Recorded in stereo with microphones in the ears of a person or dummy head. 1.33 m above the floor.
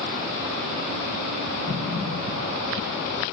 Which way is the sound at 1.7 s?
15° right (ahead or behind).